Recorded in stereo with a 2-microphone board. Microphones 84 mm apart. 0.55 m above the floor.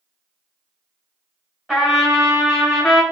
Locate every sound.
1.7 s a trumpet: 5° left (ahead or behind), 1.5 m